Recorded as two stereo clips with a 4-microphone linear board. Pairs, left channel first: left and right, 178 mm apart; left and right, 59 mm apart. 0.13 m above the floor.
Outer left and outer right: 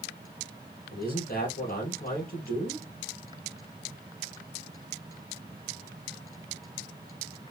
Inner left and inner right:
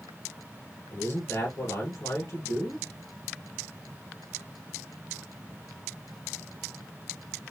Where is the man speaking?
60° left (ahead or behind), 2.5 m.